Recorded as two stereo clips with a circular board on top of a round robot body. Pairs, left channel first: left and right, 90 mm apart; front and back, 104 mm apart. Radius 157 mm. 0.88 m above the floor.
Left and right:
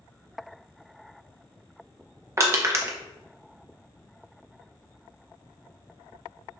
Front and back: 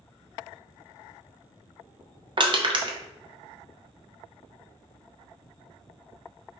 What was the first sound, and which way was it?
Crushing, 145° right.